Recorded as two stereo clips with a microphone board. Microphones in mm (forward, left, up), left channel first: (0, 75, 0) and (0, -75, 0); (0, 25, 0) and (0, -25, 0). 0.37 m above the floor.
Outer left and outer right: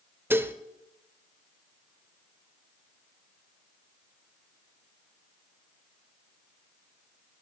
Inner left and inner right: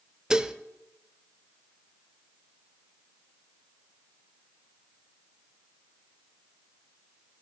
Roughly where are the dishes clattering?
Centre.